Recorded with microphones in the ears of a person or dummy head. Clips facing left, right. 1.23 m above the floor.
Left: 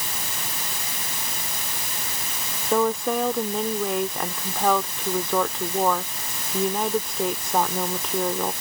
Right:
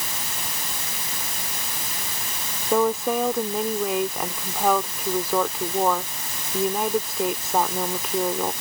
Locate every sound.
2.7 s a woman speaking: 5° right (ahead or behind)